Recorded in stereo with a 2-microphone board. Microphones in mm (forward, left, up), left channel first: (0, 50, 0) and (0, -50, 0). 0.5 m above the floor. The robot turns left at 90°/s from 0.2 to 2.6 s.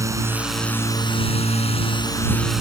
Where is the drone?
150° right; by 2.6 s 5° right.